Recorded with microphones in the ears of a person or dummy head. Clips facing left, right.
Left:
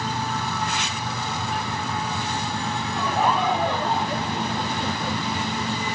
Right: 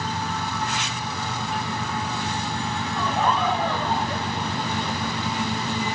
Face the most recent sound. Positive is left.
turn(degrees=30)  # may be behind; listen again after turning